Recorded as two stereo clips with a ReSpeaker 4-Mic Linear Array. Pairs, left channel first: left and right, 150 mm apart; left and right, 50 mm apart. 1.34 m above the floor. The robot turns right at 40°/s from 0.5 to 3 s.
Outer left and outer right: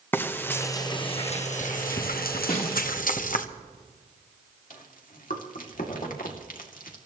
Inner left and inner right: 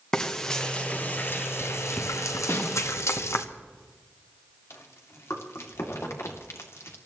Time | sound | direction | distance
0.1 | frying | 15° left (ahead or behind) | 1.1 m
2.5 | a snare drum | 70° left (ahead or behind) | 3 m
4.7 | chewing | 70° left (ahead or behind) | 2.5 m